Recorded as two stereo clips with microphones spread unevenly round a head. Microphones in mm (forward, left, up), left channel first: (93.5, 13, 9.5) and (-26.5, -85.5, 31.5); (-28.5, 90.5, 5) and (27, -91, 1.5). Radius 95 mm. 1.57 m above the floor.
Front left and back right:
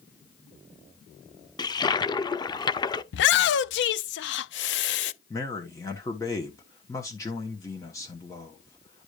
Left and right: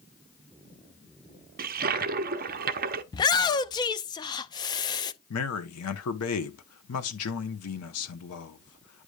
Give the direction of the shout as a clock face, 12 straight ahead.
11 o'clock.